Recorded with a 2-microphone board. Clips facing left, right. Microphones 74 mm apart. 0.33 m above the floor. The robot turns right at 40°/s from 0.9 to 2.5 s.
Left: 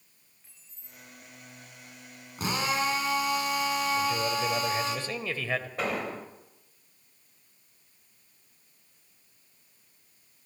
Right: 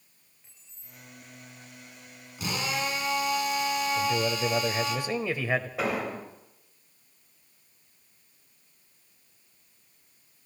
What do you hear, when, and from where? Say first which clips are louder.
0.4 s keys jangling: right 1 dB; centre (ahead or behind), 4.5 m; by 1.0 s 5° right (ahead or behind), 4.5 m
2.4 s a drill: left 3 dB; 40° left (ahead or behind), 3 m
4.0 s a man speaking: right 1 dB; 15° right (ahead or behind), 1.2 m
5.8 s an explosion: right 2 dB; 5° right (ahead or behind), 1.6 m